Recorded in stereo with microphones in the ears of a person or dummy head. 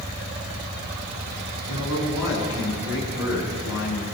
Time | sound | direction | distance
1.7 | a man speaking | 25° right (ahead or behind) | 8 m